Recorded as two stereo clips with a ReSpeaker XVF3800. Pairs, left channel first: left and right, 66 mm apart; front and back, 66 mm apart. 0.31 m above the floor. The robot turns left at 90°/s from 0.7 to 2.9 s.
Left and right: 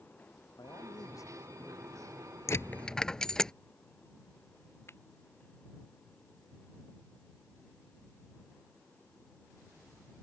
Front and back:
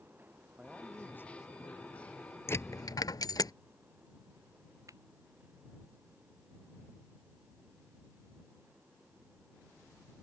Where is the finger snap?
145° left.